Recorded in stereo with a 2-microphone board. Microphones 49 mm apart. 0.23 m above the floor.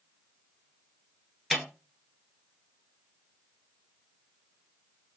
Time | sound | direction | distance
1.5 | a snare drum | centre (ahead or behind) | 1.0 m